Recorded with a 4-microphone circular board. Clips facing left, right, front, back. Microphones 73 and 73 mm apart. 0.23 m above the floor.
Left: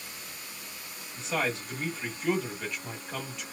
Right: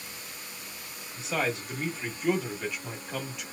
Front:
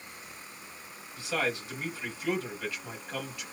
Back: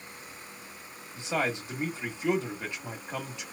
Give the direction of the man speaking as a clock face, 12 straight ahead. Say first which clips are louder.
Right 1 dB, back 1 dB; 6 o'clock.